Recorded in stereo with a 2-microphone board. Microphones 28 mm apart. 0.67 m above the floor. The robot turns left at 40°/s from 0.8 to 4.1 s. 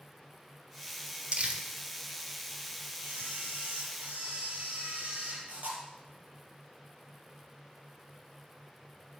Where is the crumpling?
40° right (ahead or behind), 1.6 m; by 1.6 s 55° right (ahead or behind), 1.6 m.